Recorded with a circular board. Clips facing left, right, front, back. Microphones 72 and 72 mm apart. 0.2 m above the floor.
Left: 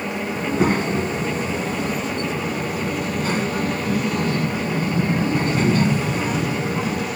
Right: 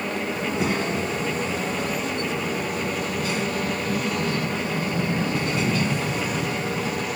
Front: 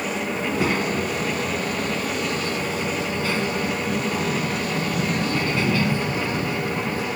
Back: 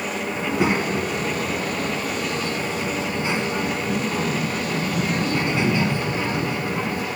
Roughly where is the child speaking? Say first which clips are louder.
Left 7 dB, back 3 dB; behind left.